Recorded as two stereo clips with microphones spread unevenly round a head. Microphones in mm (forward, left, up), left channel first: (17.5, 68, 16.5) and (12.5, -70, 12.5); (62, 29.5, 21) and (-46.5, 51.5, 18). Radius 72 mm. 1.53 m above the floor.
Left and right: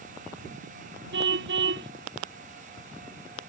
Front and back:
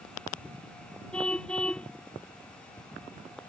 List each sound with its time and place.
1.1 s a car horn: 95° right